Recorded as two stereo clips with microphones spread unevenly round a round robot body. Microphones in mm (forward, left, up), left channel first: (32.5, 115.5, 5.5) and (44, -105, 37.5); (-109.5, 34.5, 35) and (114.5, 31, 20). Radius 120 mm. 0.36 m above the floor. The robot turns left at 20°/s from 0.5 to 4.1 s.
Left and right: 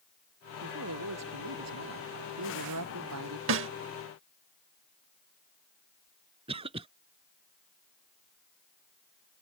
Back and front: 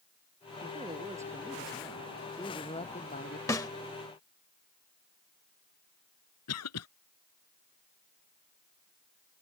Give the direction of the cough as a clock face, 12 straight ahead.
5 o'clock.